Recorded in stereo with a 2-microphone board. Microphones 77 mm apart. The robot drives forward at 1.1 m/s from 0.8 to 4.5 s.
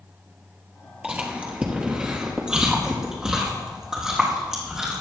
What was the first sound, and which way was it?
Chewing, 20° right (ahead or behind).